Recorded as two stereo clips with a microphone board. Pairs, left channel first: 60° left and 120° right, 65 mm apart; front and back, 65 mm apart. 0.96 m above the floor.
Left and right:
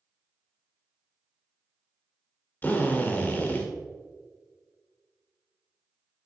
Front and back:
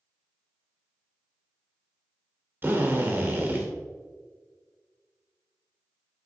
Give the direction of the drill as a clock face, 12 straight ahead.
8 o'clock.